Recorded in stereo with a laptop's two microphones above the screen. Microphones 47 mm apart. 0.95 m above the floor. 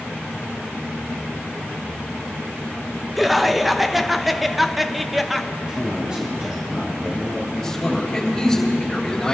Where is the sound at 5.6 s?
20° right (ahead or behind), 4 m.